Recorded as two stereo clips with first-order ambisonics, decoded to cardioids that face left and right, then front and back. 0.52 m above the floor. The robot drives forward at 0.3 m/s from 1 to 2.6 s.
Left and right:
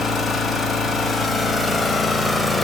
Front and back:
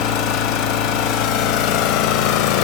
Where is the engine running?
5° left, 1.3 m.